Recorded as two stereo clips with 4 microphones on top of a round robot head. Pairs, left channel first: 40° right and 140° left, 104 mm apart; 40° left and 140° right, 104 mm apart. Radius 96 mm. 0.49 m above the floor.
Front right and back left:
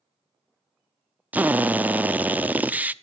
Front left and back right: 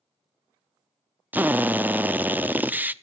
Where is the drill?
175° right, 0.9 m.